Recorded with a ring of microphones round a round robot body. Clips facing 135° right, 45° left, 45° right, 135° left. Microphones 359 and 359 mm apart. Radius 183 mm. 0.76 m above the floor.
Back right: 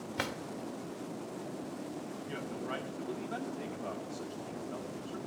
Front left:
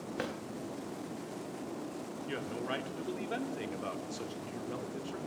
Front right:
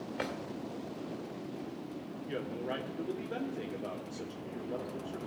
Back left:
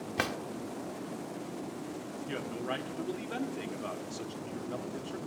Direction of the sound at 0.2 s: 155° left.